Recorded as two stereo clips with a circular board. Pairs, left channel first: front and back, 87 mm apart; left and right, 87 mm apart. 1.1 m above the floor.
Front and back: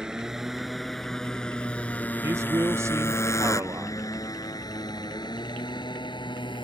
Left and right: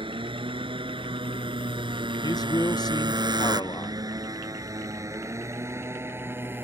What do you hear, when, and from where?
0.0 s a motorcycle: 100° right; by 6.7 s 25° right
2.2 s a man speaking: 125° left